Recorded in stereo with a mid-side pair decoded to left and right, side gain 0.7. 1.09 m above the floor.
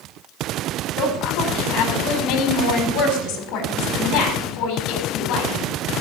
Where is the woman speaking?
60° left, 4 m.